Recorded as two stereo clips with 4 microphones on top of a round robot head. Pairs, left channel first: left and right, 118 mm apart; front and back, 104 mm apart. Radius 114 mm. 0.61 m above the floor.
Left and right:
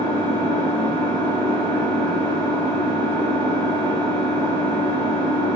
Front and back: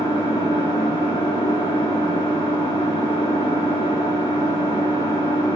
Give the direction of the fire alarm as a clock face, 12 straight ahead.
No fire alarm in this recording.